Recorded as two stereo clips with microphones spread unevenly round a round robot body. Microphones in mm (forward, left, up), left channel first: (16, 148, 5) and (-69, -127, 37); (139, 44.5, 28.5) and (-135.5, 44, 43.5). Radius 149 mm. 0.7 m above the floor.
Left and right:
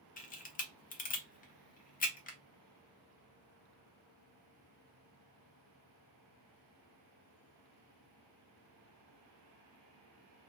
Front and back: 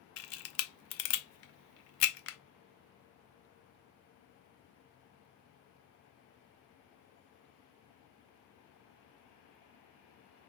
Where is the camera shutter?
15° left, 0.6 m.